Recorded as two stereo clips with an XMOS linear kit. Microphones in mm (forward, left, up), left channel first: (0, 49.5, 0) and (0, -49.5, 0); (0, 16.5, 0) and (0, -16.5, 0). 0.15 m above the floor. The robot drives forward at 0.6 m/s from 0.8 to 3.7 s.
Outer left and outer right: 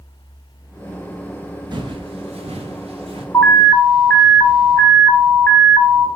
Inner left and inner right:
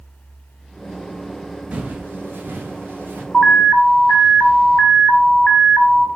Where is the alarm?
15° left (ahead or behind), 1.2 m.